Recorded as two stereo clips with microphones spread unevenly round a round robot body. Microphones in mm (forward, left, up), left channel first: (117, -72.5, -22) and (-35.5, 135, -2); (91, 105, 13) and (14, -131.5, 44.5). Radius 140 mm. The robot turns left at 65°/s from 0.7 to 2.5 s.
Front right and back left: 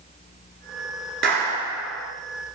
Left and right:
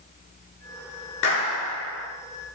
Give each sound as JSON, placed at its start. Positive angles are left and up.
{"t": 1.2, "sound": "a clap", "azimuth_deg": 80, "distance_m": 8.0}